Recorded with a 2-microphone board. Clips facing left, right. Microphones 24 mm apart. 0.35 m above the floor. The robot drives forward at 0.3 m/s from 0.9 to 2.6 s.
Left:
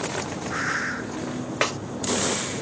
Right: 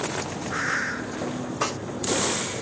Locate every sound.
1.6 s a snare drum: 60° left (ahead or behind), 1.1 m